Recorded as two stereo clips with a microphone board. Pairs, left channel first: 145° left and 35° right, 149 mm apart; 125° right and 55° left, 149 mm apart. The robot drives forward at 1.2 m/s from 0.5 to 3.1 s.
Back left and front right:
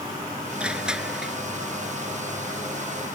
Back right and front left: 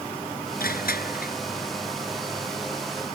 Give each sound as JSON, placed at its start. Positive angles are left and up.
{"t": 0.6, "sound": "crushing", "azimuth_deg": -115}